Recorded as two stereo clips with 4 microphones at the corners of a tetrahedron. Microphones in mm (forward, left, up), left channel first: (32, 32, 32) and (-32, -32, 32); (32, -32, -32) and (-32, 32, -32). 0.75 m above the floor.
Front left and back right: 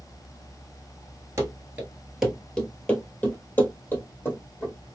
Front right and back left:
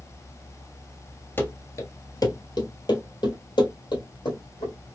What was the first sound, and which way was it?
Running footsteps, 100° right.